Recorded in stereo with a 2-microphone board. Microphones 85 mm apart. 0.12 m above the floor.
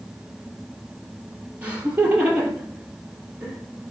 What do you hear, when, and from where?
1.6 s laughter: 15° right (ahead or behind), 3.5 m